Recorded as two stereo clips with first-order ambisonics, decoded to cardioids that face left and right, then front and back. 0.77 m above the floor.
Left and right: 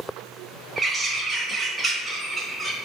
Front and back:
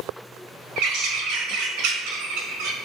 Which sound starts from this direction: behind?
A bird, at 0.8 s.